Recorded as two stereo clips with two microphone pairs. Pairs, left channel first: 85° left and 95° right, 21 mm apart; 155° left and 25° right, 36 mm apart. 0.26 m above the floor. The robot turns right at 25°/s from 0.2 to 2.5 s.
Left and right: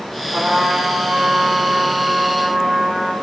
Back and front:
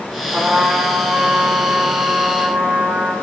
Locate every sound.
0.3 s a trumpet: 80° right, 4.5 m; by 3.2 s 25° right, 4.5 m